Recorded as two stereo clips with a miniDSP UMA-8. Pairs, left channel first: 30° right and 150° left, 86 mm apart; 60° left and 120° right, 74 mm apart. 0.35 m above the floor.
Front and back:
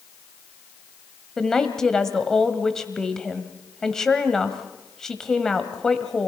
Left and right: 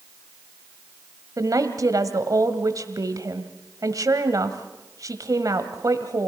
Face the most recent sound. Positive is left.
turn(degrees=-110)